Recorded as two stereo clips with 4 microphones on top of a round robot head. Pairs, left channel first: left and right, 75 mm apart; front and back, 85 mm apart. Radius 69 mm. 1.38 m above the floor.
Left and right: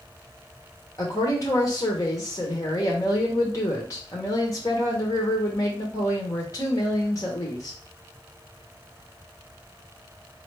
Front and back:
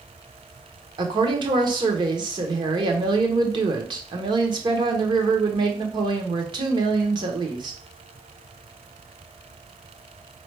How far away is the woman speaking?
About 1.1 m.